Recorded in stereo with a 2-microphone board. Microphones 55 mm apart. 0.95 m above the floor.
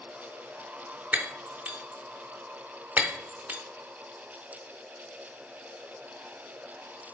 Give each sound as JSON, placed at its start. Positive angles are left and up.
{"t": 1.1, "sound": "breaking glass", "side_deg": -25, "distance_m": 0.7}